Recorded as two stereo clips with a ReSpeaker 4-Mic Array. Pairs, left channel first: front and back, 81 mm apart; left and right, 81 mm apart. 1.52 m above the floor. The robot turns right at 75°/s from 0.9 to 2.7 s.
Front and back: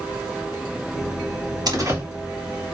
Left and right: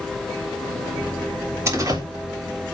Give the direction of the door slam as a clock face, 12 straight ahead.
5 o'clock.